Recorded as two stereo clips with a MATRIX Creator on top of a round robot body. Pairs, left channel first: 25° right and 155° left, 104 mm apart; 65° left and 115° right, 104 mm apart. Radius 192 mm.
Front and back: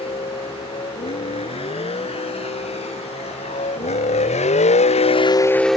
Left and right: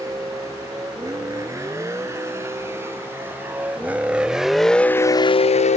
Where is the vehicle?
50° right; by 5.8 s 70° left.